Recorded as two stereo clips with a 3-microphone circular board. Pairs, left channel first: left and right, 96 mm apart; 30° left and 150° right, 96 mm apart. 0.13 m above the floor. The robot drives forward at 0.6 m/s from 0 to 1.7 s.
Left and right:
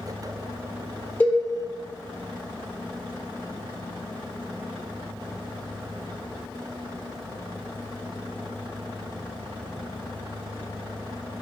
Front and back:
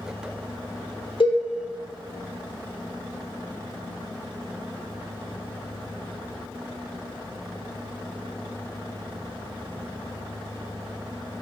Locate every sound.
1.2 s a cowbell: 20° left, 1.5 m